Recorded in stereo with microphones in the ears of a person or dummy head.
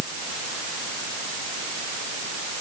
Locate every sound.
Only background noise.